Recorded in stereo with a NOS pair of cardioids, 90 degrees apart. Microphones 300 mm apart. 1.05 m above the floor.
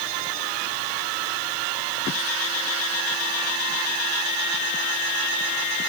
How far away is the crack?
No crack in this recording.